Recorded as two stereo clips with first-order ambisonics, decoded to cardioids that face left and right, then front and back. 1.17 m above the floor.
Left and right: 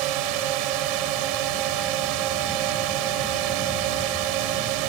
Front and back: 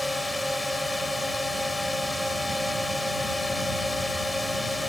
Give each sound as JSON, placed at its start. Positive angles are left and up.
{"t": 0.0, "sound": "a drone", "azimuth_deg": -85}